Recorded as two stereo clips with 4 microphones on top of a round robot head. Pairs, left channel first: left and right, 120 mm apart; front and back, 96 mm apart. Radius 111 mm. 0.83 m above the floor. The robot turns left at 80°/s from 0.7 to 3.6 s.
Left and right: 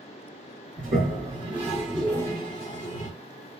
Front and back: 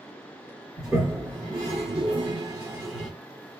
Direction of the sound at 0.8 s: 85° right.